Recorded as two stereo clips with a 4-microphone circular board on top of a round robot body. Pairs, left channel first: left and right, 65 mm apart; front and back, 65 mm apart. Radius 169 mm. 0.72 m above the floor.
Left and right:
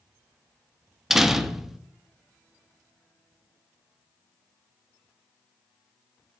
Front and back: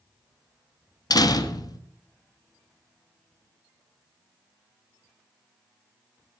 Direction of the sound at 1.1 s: 5° right.